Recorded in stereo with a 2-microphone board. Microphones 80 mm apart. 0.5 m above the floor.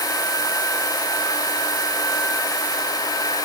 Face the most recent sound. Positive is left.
No sound to turn to.